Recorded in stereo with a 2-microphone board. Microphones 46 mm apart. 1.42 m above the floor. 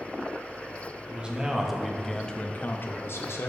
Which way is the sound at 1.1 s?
25° right (ahead or behind).